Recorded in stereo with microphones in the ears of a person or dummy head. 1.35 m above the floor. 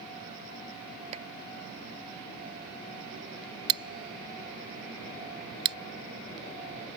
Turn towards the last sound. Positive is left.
turn(degrees=-30)  # may be behind; listen again after turning